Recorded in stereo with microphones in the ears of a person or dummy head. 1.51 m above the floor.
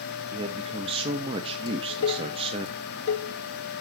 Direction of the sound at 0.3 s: 25° right (ahead or behind).